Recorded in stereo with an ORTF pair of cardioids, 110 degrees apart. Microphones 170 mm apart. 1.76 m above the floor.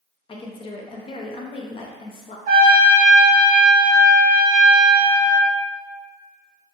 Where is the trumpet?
60° right, 1.1 m.